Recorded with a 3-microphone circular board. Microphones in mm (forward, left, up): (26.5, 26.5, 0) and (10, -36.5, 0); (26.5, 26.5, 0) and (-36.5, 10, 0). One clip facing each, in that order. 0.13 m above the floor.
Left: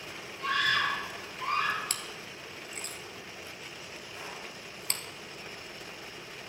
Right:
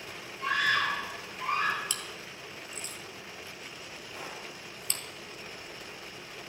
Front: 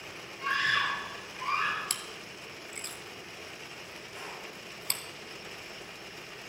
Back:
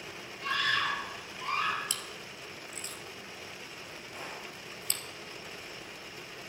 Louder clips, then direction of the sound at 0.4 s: Right 1 dB, front 2 dB; 35° right.